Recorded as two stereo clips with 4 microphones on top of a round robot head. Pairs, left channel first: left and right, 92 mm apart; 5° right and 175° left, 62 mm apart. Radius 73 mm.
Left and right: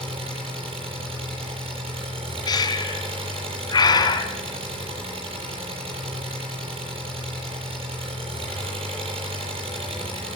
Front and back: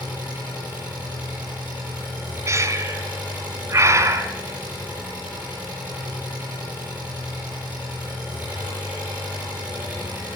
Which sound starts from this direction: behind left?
Breathing, at 2.5 s.